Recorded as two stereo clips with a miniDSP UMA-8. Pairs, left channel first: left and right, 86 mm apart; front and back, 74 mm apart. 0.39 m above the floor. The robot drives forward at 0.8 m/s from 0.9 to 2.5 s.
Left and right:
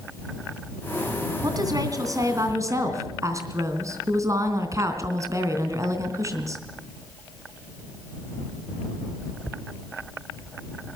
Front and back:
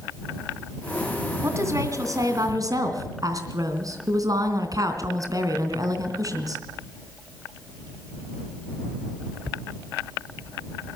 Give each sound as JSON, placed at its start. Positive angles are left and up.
{"t": 1.4, "sound": "a woman speaking", "azimuth_deg": -130, "distance_m": 2.5}